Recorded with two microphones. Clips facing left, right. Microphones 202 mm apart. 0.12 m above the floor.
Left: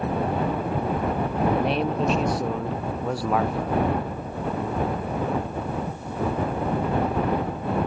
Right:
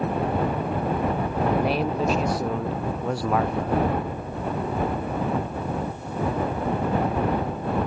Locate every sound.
1.5 s a man speaking: 5° right (ahead or behind); by 3.8 s centre (ahead or behind)